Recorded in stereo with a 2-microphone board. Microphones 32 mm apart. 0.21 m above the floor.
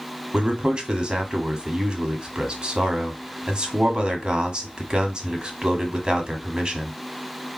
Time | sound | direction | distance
0.3 | a man speaking | 30° right (ahead or behind) | 1.2 m